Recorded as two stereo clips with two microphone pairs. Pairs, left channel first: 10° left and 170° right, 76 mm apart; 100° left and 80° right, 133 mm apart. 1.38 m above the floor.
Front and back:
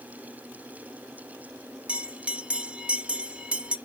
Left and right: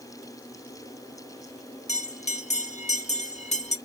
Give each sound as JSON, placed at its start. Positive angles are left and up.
{"t": 1.9, "sound": "a bell", "azimuth_deg": 115, "distance_m": 0.6}